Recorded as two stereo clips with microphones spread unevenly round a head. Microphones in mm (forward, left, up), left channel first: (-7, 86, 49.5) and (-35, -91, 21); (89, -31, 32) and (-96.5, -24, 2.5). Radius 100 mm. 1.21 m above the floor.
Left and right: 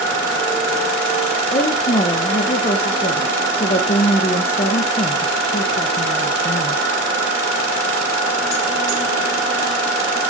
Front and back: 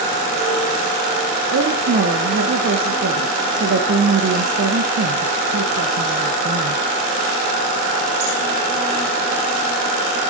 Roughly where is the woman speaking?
Behind left.